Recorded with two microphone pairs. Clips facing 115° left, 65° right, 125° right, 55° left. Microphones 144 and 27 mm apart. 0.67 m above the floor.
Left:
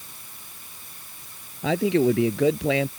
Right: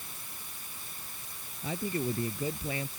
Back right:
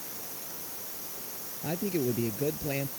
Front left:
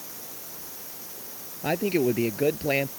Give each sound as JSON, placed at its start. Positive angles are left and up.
{"t": 1.6, "sound": "a man speaking", "azimuth_deg": 110}